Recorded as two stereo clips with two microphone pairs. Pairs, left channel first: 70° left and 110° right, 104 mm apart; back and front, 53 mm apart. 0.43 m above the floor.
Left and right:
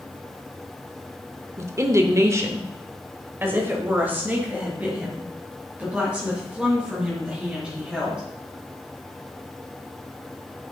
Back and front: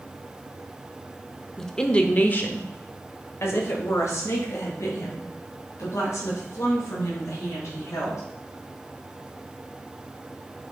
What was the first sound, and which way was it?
A woman speaking, 105° right.